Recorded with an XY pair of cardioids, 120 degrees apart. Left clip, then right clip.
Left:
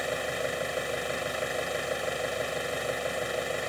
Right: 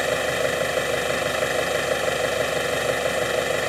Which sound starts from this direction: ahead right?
An engine running, at 0.0 s.